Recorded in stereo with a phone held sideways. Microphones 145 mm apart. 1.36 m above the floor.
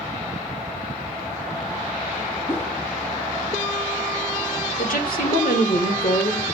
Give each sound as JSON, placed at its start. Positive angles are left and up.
{"t": 2.5, "sound": "a whoosh", "side_deg": 15, "distance_m": 1.3}
{"t": 4.8, "sound": "a woman speaking", "side_deg": 75, "distance_m": 2.5}